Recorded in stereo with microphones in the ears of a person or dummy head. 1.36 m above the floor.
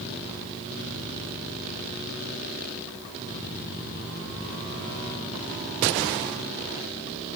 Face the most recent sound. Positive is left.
No sound to turn to.